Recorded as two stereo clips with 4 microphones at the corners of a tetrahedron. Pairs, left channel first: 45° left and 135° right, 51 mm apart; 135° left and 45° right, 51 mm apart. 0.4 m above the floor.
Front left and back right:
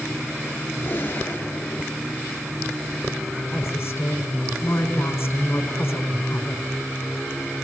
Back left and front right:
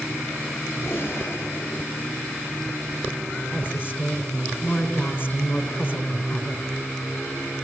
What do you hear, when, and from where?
0.8 s a gunshot: 100° left, 3.5 m
3.5 s a woman speaking: 85° left, 4.5 m